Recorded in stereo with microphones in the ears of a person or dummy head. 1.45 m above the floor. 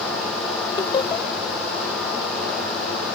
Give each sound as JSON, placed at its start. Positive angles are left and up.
{"t": 0.8, "sound": "laughter", "side_deg": 30}